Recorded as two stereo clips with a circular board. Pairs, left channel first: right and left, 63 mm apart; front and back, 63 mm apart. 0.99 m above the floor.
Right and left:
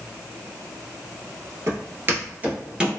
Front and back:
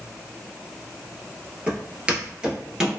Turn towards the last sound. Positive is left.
turn(degrees=135)